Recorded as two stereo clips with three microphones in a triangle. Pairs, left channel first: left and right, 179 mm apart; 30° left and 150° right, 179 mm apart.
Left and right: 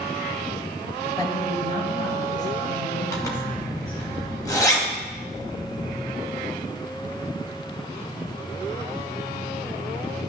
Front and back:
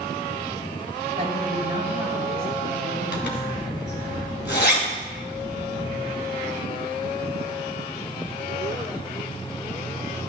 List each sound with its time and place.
1.1 s a woman speaking: 160° left, 2.5 m; by 4.1 s 125° left, 6 m
3.1 s a zipper: 20° left, 2 m